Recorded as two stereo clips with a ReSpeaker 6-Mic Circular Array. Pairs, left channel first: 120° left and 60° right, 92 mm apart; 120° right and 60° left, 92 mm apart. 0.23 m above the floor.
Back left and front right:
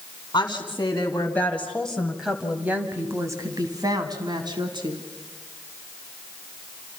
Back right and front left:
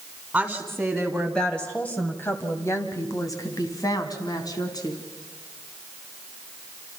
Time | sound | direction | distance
0.3 | a woman speaking | 140° left | 2 m